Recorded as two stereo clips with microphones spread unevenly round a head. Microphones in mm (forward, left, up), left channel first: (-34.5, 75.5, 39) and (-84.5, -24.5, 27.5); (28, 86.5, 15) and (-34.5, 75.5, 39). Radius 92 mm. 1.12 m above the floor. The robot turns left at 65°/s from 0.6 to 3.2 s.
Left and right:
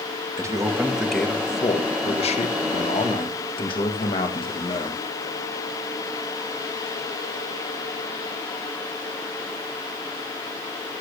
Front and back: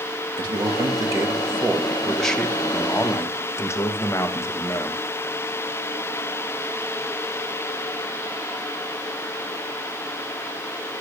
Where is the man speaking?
175° right, 1.4 m; by 5.1 s 20° left, 1.4 m.